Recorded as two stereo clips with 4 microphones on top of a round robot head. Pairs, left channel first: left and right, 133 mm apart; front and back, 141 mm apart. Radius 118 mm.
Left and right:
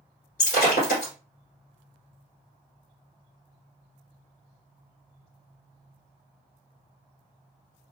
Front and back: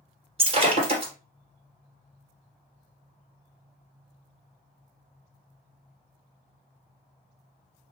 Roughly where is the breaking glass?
Behind left.